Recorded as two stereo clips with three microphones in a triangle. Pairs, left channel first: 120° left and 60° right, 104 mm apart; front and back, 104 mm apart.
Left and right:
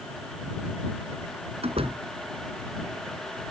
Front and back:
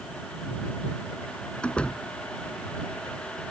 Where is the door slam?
80° right.